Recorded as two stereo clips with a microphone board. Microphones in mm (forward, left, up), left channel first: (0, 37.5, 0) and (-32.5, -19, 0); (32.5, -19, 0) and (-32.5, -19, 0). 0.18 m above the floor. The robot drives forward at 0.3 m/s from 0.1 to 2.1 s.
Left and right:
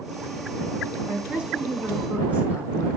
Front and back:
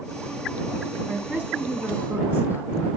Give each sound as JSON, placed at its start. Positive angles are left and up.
{"t": 1.1, "sound": "a woman speaking", "azimuth_deg": -145, "distance_m": 1.1}